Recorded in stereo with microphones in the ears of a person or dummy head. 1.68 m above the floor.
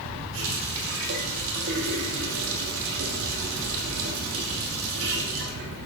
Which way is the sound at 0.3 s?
75° right (ahead or behind).